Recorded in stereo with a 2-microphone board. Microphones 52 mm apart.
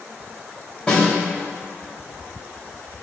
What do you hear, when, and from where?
0.9 s a snare drum: 15° left (ahead or behind), 3 m